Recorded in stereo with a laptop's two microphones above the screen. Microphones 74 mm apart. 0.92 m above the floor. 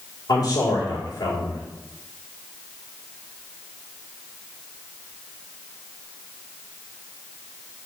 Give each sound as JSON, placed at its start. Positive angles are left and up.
{"t": 0.3, "sound": "a man speaking", "side_deg": 55, "distance_m": 2.5}